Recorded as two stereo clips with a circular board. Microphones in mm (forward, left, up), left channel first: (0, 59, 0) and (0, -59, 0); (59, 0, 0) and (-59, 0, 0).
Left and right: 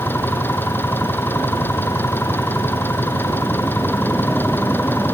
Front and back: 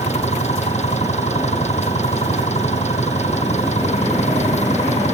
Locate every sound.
0.0 s an engine running: 15° left